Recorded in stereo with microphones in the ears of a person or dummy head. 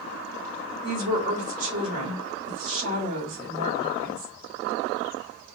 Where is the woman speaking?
45° right (ahead or behind), 1.7 m.